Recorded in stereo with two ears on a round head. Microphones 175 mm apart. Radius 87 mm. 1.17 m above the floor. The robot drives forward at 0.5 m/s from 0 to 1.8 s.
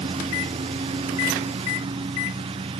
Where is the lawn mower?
25° right (ahead or behind).